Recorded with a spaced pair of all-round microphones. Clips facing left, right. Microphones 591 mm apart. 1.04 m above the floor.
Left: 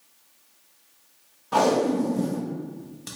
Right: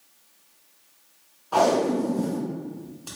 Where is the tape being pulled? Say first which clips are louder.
Even; 50° left (ahead or behind), 0.7 m.